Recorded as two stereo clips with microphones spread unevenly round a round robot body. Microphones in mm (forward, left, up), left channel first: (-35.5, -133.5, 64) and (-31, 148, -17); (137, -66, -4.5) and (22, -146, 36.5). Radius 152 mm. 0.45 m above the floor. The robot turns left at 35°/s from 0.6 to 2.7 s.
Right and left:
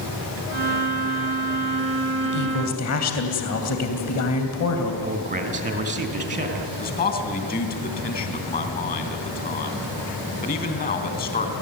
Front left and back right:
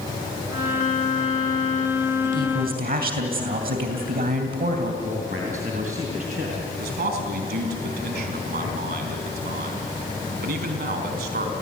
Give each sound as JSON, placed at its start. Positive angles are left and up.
{"t": 2.2, "sound": "a woman speaking", "azimuth_deg": -115, "distance_m": 3.0}
{"t": 5.0, "sound": "a man speaking", "azimuth_deg": 150, "distance_m": 3.5}
{"t": 6.8, "sound": "a man speaking", "azimuth_deg": -155, "distance_m": 4.0}